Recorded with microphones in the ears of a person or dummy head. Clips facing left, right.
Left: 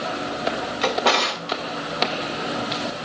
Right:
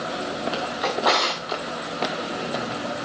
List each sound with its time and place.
0.8 s a drawer: 30° left (ahead or behind), 1.8 m